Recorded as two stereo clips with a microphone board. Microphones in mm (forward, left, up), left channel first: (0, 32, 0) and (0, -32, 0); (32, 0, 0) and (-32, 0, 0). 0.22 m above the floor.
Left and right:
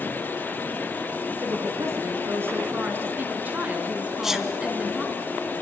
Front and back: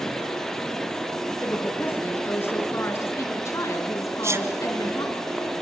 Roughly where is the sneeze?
Behind.